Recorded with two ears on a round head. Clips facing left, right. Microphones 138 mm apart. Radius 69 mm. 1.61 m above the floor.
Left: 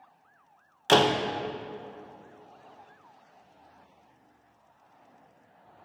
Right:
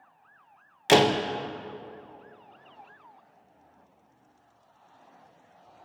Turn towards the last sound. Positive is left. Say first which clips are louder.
# right 2 dB
turn(degrees=-10)  # may be behind; listen again after turning